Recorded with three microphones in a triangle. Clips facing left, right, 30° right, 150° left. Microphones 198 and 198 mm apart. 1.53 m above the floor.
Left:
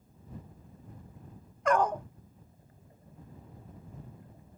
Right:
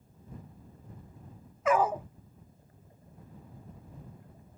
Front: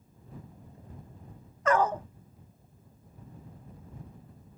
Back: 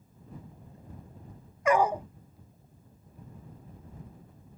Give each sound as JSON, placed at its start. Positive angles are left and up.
{"t": 1.6, "sound": "a dog barking", "azimuth_deg": -160}